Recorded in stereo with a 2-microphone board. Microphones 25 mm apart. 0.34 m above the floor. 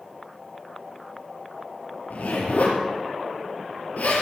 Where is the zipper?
80° left, 4 m.